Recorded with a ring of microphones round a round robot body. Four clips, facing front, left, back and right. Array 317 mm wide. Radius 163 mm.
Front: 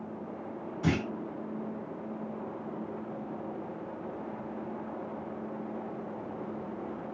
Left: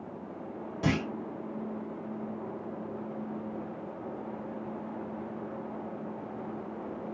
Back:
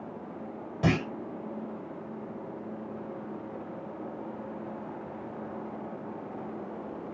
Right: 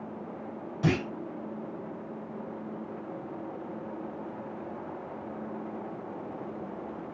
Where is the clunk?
175° left, 1.5 m.